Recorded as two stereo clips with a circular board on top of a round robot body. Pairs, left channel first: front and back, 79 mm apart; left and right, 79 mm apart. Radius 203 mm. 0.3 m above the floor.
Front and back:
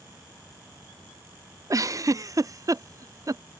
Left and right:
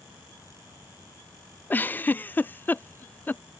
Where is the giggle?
150° left.